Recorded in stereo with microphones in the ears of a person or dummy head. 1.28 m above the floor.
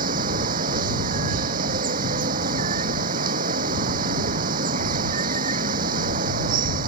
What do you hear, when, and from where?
0.0 s running water: 45° right (ahead or behind)